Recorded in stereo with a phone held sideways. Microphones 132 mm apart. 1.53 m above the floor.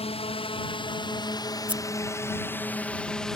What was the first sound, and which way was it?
A drone, 45° left (ahead or behind).